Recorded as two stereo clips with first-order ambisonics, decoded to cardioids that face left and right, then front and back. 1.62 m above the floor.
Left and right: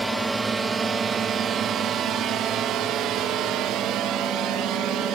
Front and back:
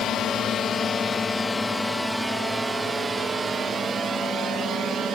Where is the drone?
15° right; by 5.1 s 125° right.